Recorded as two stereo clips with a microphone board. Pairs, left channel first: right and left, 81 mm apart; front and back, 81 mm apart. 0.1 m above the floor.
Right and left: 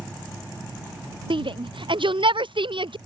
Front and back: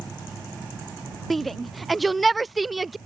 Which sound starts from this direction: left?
A shout, at 1.3 s.